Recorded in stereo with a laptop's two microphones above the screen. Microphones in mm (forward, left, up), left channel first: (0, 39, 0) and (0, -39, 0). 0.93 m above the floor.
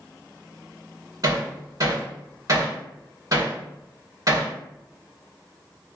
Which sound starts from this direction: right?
Hammering, at 1.2 s.